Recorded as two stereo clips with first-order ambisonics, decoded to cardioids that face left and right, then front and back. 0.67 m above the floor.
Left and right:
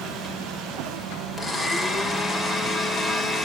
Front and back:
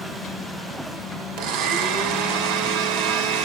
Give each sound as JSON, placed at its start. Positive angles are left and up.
{"t": 1.4, "sound": "a blender", "azimuth_deg": 180, "distance_m": 2.5}